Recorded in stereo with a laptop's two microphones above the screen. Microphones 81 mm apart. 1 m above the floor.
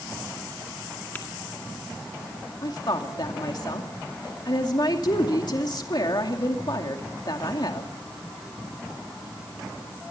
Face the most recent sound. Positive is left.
turn(degrees=55)  # may be behind; listen again after turning